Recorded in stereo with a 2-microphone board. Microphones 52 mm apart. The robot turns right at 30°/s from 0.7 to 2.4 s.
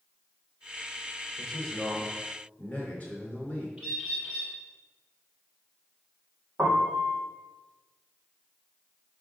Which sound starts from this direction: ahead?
A man speaking, at 1.4 s.